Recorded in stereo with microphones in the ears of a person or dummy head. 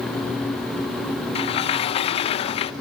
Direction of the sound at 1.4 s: 35° left (ahead or behind).